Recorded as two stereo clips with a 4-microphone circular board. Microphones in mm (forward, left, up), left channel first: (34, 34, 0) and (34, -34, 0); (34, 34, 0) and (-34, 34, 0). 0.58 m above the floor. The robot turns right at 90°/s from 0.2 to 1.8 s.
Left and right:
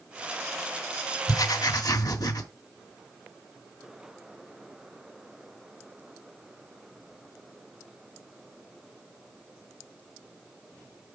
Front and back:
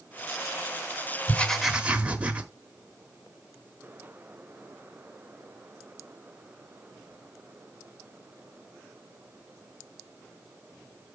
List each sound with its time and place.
1.3 s writing: 60° left, 1.1 m; by 2.5 s 110° left, 1.1 m